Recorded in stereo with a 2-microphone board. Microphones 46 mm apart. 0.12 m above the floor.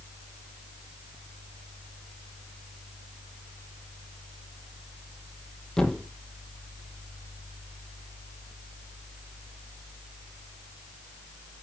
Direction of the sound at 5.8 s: 15° left (ahead or behind).